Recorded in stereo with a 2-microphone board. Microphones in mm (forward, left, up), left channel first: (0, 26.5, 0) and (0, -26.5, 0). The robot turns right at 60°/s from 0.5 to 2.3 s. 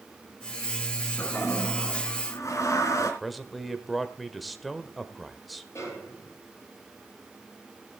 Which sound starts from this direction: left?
A snare drum, at 5.8 s.